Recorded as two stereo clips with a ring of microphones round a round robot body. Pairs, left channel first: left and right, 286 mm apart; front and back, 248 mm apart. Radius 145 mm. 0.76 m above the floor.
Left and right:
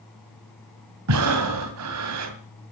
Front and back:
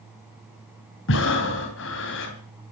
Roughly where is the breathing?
Ahead right.